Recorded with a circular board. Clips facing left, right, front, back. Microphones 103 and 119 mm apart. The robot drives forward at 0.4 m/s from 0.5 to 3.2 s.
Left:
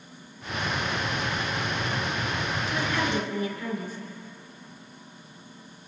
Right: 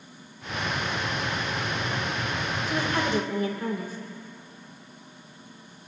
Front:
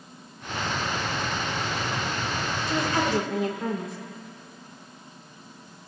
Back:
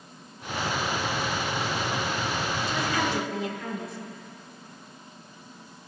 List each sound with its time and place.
2.7 s a woman speaking: 40° right, 2 m; by 4.0 s 45° right, 1.9 m